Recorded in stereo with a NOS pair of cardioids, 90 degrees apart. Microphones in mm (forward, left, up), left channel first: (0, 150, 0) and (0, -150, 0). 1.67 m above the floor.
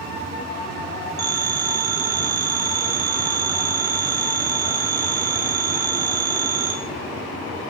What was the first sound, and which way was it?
A phone ringing, 65° right.